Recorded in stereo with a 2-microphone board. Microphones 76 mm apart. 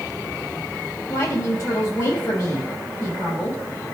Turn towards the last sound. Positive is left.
turn(degrees=45)  # may be behind; listen again after turning